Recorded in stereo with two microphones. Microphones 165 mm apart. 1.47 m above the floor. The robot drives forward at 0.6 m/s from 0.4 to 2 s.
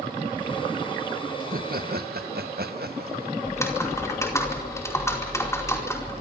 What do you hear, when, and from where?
1.4 s laughter: 60° right (ahead or behind), 1.5 m; by 3.3 s 70° right (ahead or behind), 1.4 m
3.5 s typing on a keyboard: 15° left (ahead or behind), 4.5 m